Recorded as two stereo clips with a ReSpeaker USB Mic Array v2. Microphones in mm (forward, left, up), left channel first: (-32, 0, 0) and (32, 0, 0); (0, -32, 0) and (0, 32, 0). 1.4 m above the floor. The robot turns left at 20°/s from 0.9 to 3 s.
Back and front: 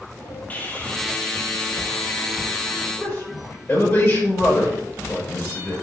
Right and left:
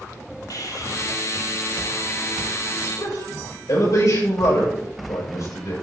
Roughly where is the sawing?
Behind right.